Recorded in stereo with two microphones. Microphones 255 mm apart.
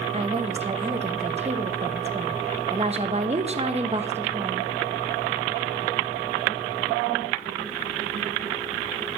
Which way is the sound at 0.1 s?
25° right (ahead or behind).